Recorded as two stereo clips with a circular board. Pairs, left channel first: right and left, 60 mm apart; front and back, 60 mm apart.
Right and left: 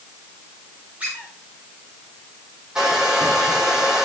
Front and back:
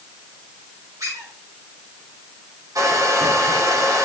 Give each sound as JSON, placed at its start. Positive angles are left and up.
{"t": 1.0, "sound": "a squeak", "azimuth_deg": 160, "distance_m": 10.0}
{"t": 2.8, "sound": "a hair dryer", "azimuth_deg": 170, "distance_m": 6.5}